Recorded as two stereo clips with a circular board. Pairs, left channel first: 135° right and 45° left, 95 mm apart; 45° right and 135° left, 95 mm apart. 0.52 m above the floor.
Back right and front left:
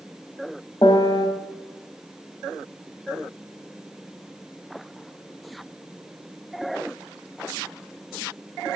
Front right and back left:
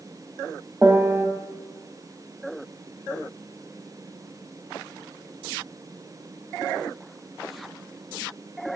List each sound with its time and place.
0.8 s a piano: 160° right, 0.9 m